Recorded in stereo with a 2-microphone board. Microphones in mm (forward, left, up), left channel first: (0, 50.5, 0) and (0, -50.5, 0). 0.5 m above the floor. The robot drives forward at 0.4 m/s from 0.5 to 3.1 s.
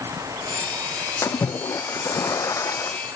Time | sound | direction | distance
1.2 | a splash | 30° left (ahead or behind) | ?